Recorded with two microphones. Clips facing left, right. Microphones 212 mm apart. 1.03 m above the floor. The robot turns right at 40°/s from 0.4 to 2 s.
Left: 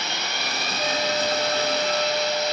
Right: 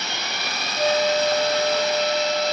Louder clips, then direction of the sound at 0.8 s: Right 6 dB; 80° right.